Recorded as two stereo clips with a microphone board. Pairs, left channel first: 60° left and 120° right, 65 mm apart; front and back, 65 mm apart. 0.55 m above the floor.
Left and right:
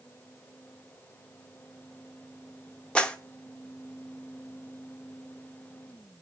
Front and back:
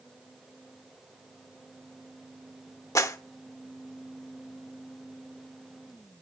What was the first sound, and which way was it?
A clap, 10° right.